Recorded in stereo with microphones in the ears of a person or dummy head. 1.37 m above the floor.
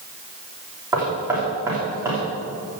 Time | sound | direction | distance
0.9 | knocking | 15° right (ahead or behind) | 3.5 m